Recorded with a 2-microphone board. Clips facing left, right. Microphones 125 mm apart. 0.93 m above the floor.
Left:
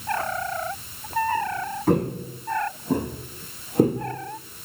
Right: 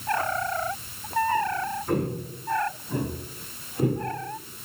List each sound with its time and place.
1.9 s footsteps: 80° left, 5 m; by 4.0 s 55° left (ahead or behind), 4.5 m